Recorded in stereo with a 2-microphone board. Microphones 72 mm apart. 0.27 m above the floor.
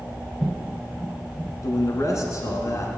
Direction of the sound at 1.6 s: 45° left (ahead or behind).